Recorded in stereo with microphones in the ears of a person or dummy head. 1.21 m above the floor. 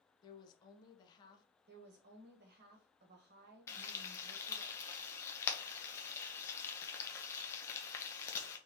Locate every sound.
0.2 s a woman speaking: 25° left (ahead or behind), 0.7 m
1.7 s a woman speaking: 50° right (ahead or behind), 0.9 m
3.7 s frying: 15° left (ahead or behind), 0.7 m